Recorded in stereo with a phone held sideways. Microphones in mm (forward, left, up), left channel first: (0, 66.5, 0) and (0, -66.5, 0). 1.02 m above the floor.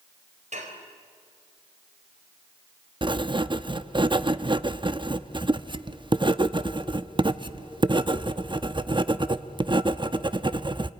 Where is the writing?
35° right (ahead or behind), 0.7 m.